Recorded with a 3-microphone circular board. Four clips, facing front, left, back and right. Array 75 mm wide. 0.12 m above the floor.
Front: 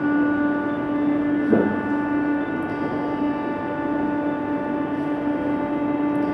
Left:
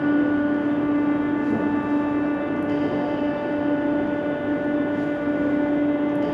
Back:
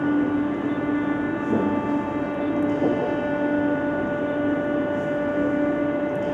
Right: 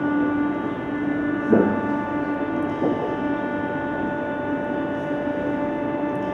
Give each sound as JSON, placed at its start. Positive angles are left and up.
{"t": 1.5, "sound": "footsteps", "azimuth_deg": -55, "distance_m": 1.9}